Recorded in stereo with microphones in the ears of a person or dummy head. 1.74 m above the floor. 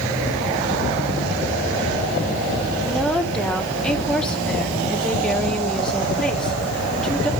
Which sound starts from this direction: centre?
A woman speaking, at 2.8 s.